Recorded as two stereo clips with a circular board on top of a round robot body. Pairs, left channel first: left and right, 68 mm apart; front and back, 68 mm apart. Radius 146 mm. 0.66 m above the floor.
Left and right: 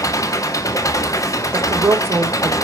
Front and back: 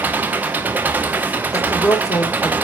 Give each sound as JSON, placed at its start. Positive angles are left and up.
{"t": 0.0, "sound": "an engine running", "azimuth_deg": 120, "distance_m": 1.2}
{"t": 1.5, "sound": "a woman speaking", "azimuth_deg": -40, "distance_m": 2.5}